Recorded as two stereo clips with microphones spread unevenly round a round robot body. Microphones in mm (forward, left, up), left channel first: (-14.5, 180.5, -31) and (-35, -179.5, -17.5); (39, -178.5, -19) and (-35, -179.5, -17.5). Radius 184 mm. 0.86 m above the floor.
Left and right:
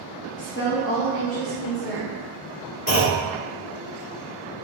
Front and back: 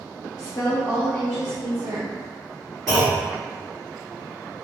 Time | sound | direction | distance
0.4 | a woman speaking | 35° left | 0.8 m
2.9 | a clunk | 115° left | 0.9 m